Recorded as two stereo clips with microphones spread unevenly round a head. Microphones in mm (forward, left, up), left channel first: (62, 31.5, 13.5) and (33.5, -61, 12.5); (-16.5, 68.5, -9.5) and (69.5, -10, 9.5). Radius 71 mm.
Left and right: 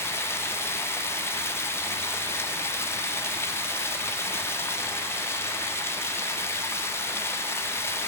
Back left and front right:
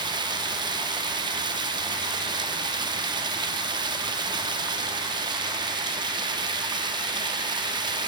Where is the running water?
5° left, 0.7 m.